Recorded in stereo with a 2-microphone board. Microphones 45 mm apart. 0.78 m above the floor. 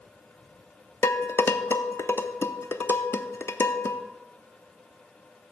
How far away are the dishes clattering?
About 0.8 m.